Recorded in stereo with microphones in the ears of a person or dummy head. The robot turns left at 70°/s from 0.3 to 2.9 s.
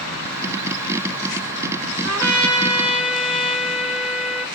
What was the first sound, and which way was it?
A trumpet, 105° right.